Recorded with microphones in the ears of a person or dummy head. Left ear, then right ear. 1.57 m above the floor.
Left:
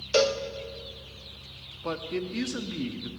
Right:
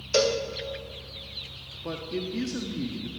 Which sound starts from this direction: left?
A man speaking, at 1.8 s.